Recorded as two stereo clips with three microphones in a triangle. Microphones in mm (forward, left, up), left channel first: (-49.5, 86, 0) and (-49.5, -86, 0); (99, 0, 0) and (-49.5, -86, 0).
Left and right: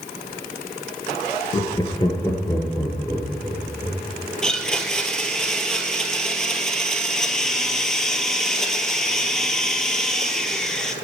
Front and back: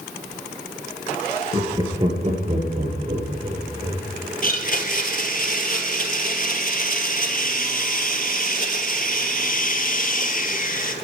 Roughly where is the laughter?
Behind left.